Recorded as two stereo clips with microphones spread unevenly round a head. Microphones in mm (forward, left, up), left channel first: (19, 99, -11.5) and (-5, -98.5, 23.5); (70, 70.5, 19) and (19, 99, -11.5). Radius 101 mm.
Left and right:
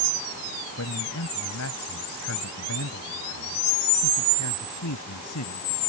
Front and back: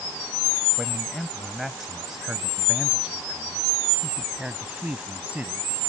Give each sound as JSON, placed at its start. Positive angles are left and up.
{"t": 0.8, "sound": "a man speaking", "azimuth_deg": 60}